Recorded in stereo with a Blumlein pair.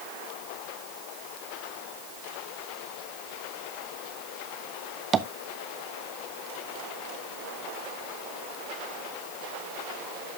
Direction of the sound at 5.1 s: 20° right.